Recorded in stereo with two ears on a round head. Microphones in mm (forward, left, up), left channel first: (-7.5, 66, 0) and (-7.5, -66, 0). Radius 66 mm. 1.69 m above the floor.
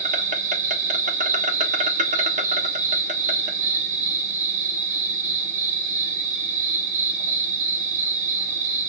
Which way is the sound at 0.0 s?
55° right (ahead or behind).